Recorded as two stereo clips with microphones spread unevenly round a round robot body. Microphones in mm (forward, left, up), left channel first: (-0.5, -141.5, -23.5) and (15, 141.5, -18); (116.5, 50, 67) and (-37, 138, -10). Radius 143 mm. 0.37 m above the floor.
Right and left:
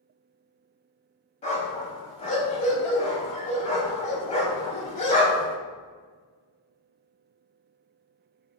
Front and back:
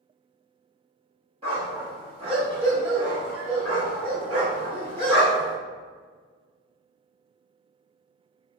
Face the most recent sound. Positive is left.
turn(degrees=-160)